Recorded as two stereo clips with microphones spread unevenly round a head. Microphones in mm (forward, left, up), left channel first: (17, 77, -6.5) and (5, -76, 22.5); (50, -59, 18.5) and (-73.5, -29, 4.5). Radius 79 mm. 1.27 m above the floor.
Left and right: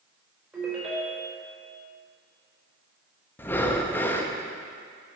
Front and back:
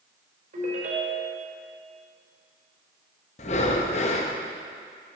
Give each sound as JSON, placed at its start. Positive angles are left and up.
{"t": 0.5, "sound": "a ringtone", "azimuth_deg": -170, "distance_m": 4.0}
{"t": 3.4, "sound": "breathing", "azimuth_deg": 0, "distance_m": 0.7}